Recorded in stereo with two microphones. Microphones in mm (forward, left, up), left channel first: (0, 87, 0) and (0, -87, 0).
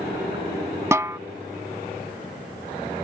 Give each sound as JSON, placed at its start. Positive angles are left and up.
{"t": 0.9, "sound": "a snare drum", "side_deg": -15}